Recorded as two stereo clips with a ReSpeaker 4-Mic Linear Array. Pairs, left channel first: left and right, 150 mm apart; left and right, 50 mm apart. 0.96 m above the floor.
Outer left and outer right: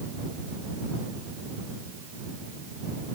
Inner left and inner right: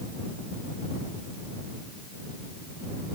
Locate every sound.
Only background noise.